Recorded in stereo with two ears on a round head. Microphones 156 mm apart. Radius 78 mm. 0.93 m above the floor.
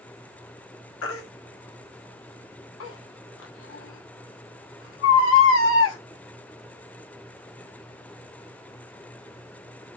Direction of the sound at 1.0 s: 85° left.